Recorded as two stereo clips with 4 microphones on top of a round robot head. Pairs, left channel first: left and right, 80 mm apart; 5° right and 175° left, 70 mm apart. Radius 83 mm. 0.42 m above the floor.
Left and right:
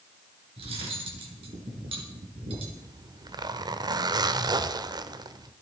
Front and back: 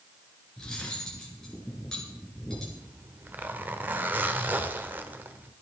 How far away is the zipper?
About 0.9 m.